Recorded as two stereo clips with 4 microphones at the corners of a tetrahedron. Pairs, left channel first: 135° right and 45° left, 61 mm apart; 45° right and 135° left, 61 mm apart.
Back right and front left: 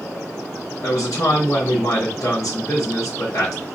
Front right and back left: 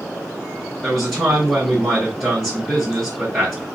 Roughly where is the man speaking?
Behind right.